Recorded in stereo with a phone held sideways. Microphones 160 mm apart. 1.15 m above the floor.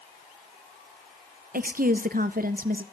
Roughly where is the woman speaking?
Right.